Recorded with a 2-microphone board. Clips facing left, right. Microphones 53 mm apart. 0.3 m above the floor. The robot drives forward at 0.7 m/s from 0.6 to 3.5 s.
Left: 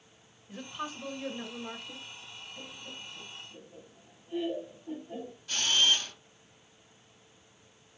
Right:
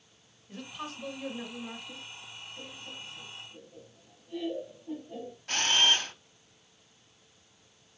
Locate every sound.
0.5 s a woman speaking: 10° left (ahead or behind), 1.0 m
2.6 s laughter: 35° left (ahead or behind), 2 m; by 5.4 s 30° left (ahead or behind), 2.5 m
5.5 s a camera shutter: 60° right (ahead or behind), 0.7 m